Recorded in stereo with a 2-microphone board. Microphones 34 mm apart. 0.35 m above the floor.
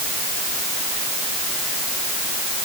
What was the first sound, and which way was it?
Only background noise.